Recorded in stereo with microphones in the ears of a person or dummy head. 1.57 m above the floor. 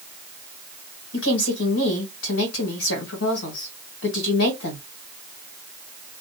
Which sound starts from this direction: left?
A woman speaking, at 1.1 s.